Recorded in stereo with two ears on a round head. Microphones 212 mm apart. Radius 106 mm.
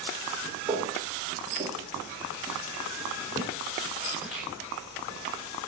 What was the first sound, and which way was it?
Footsteps, 10° right (ahead or behind).